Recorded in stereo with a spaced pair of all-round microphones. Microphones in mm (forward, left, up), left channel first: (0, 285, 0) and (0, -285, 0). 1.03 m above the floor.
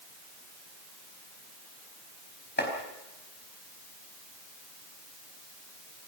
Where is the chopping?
15° left (ahead or behind), 4.5 m.